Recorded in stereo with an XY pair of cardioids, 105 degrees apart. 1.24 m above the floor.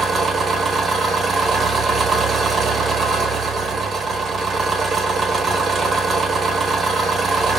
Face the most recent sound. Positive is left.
turn(degrees=-30)